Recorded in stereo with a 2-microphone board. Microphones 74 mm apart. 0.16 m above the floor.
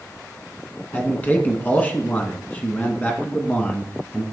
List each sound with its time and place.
0.9 s a man speaking: 25° left (ahead or behind), 1.2 m